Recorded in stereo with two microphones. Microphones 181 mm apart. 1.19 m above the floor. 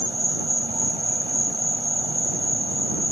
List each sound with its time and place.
0.0 s an insect: 25° right (ahead or behind)